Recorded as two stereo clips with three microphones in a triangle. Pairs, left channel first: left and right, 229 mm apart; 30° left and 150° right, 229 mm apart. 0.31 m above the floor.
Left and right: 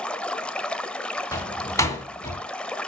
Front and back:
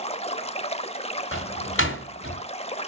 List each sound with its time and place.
0.0 s running water: 10° left, 0.7 m
1.3 s a door slam: 15° left, 2.5 m